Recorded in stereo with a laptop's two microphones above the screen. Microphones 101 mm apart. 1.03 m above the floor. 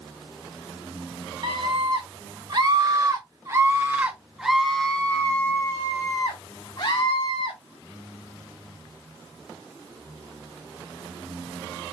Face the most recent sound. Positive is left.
turn(degrees=55)  # may be behind; listen again after turning